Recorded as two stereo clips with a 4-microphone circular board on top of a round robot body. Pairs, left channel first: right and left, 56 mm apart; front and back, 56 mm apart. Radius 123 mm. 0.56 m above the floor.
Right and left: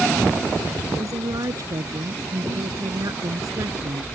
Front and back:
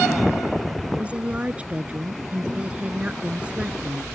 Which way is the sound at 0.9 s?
110° left.